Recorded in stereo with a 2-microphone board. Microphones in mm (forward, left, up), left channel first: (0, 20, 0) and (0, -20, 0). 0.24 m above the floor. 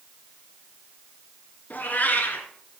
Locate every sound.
1.7 s a cat meowing: 45° left (ahead or behind), 1.7 m